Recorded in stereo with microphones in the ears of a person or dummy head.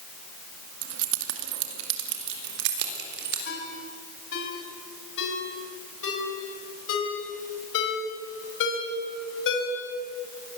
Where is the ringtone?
75° left (ahead or behind), 4.5 m.